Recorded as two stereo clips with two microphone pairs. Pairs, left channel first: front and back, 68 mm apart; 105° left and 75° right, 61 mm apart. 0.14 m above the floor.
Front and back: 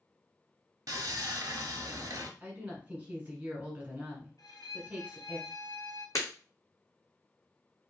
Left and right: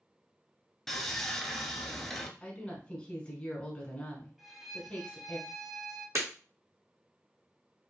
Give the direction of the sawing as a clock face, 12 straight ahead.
6 o'clock.